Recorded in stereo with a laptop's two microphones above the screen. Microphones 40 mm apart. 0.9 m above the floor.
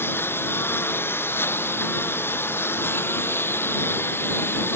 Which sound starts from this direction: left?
A lawn mower, at 0.0 s.